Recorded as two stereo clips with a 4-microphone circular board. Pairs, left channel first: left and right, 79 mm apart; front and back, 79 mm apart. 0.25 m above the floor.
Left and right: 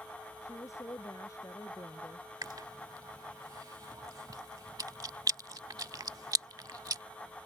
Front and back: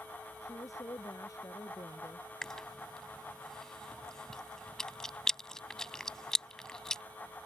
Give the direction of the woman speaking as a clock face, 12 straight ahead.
11 o'clock.